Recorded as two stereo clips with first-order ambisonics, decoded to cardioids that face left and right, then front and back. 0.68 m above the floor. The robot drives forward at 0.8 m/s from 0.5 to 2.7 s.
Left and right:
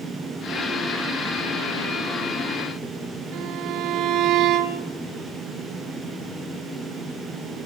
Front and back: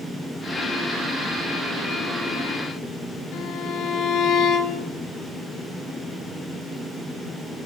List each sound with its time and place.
3.3 s a violin: 50° right, 2.5 m